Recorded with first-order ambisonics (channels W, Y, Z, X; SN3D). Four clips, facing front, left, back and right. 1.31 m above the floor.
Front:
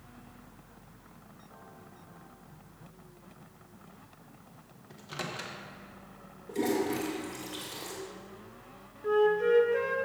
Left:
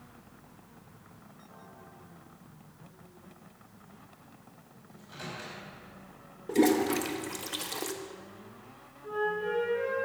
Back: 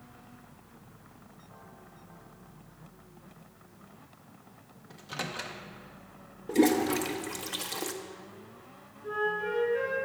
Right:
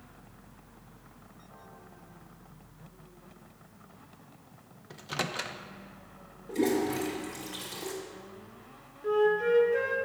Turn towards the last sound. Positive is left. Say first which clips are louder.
# right 6 dB, front 6 dB
turn(degrees=-45)